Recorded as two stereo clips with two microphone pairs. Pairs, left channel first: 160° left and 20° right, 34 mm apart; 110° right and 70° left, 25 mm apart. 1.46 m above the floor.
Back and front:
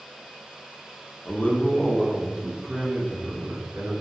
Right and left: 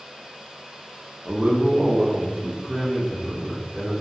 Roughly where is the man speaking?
Behind left.